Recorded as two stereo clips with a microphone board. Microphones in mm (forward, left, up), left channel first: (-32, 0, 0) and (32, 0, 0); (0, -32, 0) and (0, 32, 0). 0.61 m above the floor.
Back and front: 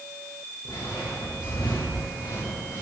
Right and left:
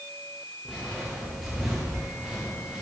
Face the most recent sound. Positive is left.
turn(degrees=180)